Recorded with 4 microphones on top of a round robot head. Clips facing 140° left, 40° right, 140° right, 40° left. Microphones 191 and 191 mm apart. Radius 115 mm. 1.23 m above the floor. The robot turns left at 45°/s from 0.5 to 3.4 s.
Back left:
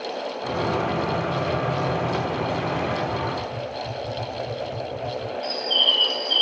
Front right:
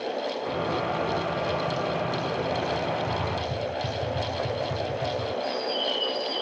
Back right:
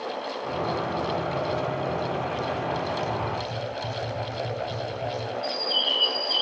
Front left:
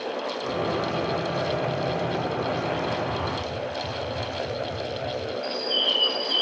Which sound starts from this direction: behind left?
A bird, at 5.4 s.